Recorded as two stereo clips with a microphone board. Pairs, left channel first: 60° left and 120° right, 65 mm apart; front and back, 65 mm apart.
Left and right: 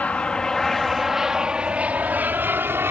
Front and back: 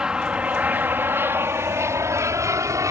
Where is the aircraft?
110° left; by 2.9 s 165° right.